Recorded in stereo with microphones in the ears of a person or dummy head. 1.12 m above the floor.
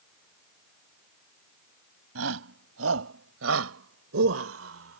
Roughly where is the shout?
Right.